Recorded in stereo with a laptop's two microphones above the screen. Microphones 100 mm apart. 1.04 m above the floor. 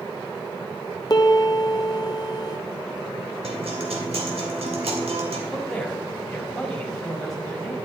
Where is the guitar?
80° right, 3 m.